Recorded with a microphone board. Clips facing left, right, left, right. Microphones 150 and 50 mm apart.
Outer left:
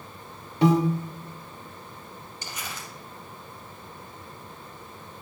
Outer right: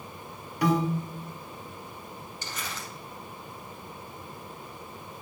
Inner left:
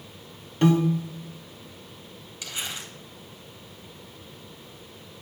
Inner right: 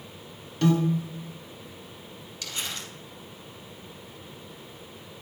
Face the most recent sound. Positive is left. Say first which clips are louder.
# even, inner left 1 dB
turn(degrees=15)  # may be behind; listen again after turning